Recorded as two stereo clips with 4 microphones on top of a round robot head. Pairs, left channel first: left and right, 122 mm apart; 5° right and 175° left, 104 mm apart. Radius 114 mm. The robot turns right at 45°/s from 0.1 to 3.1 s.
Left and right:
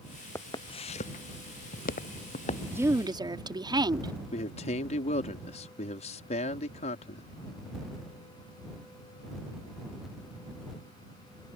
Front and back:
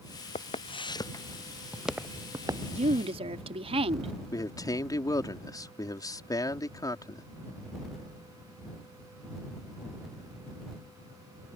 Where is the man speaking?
50° left.